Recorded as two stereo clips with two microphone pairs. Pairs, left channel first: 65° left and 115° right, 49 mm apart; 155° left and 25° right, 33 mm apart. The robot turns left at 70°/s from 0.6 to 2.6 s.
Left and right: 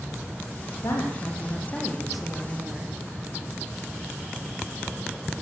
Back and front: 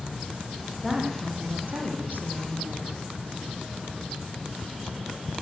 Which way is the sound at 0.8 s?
65° left.